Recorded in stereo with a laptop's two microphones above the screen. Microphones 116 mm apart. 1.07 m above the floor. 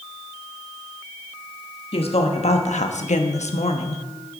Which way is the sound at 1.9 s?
55° left (ahead or behind).